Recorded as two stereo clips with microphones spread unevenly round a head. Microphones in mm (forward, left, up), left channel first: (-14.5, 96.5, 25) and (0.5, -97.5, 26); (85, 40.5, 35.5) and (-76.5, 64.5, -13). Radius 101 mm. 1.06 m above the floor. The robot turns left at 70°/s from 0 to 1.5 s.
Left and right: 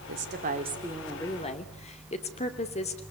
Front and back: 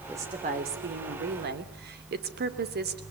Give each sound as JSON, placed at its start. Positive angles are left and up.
{"t": 0.1, "sound": "a woman speaking", "azimuth_deg": -110, "distance_m": 3.0}